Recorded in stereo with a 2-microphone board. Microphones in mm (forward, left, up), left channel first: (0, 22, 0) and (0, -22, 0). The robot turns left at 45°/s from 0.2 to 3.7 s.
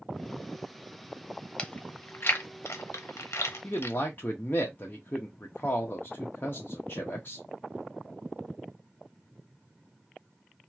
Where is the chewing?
25° left (ahead or behind), 0.6 m; by 4.0 s 60° left (ahead or behind), 0.6 m.